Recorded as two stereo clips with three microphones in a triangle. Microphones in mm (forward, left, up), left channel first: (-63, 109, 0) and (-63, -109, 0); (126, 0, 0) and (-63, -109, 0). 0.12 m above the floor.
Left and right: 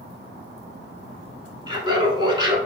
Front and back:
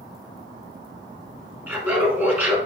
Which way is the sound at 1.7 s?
85° right.